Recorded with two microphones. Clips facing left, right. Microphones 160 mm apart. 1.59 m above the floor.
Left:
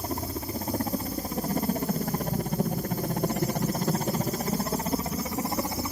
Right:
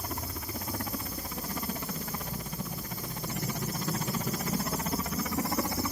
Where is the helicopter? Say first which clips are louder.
Left 6 dB; 35° left (ahead or behind); by 5.9 s 20° left (ahead or behind).